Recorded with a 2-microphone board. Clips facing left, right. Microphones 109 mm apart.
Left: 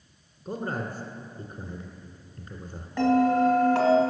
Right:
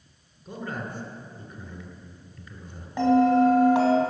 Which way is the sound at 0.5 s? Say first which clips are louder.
Left 3 dB; 35° left (ahead or behind).